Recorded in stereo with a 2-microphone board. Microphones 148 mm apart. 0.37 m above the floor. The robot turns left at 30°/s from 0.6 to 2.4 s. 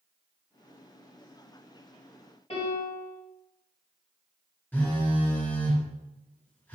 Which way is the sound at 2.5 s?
40° left (ahead or behind).